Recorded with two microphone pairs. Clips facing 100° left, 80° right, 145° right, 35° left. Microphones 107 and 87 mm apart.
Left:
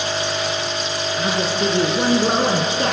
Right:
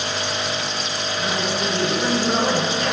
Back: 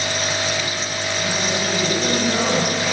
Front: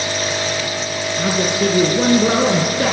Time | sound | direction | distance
1.2 | a man speaking | 45° left | 3.5 m